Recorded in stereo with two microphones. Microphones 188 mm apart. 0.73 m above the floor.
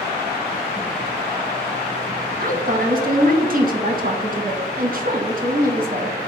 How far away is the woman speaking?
About 0.7 m.